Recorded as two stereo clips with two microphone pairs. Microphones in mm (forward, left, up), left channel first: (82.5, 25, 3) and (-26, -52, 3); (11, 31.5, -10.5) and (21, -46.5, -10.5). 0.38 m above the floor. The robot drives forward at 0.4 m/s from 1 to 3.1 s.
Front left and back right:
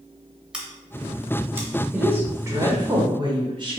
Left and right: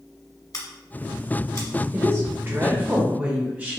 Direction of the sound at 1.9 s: 70° right.